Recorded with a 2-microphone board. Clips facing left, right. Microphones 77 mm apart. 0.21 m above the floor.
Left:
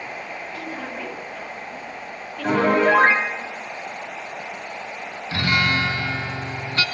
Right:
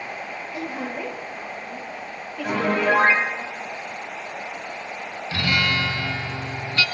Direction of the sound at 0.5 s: 20° right (ahead or behind).